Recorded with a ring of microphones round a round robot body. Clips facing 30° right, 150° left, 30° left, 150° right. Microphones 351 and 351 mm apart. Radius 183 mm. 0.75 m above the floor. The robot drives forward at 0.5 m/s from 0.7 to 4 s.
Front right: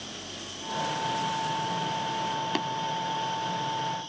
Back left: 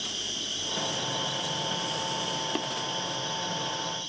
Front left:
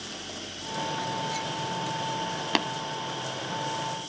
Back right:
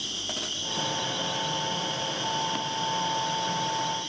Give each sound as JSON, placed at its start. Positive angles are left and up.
{"t": 0.0, "sound": "an insect", "azimuth_deg": 170, "distance_m": 6.0}
{"t": 2.5, "sound": "tapping", "azimuth_deg": 45, "distance_m": 0.6}